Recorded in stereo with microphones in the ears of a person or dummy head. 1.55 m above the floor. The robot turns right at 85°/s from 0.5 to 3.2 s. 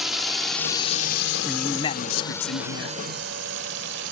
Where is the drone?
5° right (ahead or behind); by 4.1 s 55° right (ahead or behind).